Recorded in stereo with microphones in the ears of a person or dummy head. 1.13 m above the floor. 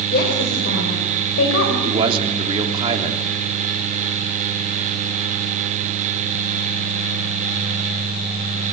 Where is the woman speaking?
50° left (ahead or behind), 5 m; by 1.7 s 80° left, 5.5 m.